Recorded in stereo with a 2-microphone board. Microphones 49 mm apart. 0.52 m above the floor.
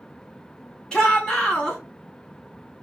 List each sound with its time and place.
0.9 s a shout: 10° left (ahead or behind), 1.2 m